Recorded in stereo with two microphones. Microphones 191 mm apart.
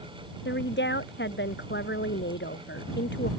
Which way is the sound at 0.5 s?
70° left (ahead or behind).